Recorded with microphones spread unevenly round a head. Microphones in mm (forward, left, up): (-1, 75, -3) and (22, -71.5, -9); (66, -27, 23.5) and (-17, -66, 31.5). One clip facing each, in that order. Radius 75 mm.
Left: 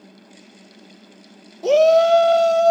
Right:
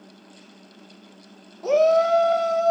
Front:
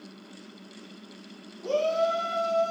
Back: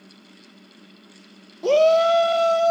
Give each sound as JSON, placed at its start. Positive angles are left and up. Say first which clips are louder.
{"t": 1.6, "sound": "a shout", "louder": "left 4 dB, back 10 dB", "azimuth_deg": 155, "distance_m": 0.6}